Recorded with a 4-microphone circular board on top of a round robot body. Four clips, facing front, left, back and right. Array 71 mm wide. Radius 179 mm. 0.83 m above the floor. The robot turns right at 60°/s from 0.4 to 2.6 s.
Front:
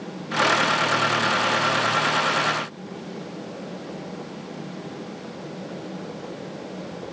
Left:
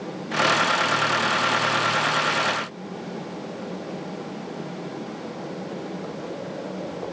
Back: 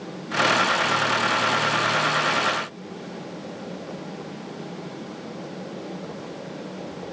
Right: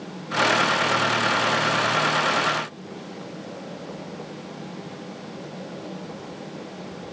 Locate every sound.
Only background noise.